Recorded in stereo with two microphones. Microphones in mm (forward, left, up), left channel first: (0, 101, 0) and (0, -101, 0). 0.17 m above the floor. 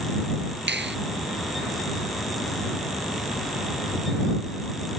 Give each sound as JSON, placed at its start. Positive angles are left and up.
{"t": 0.7, "sound": "a finger snap", "side_deg": -65}